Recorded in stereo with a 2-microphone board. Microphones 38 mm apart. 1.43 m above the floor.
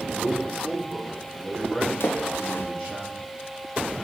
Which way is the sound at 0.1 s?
30° left (ahead or behind).